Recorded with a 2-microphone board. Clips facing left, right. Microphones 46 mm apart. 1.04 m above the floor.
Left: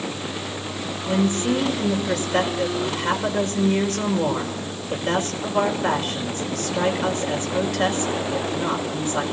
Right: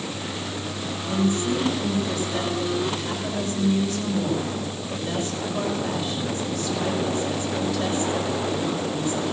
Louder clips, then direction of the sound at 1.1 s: Left 2 dB; 65° left (ahead or behind).